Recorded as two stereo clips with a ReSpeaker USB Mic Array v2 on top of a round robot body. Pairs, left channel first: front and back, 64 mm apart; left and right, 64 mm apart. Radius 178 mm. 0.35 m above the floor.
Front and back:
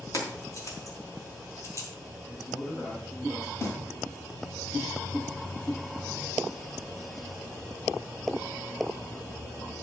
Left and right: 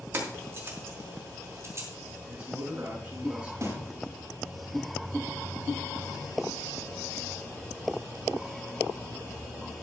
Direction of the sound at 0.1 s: 35° right.